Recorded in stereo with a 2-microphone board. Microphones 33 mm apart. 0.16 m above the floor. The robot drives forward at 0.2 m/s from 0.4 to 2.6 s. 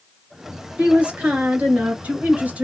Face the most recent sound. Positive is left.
turn(degrees=-55)  # may be behind; listen again after turning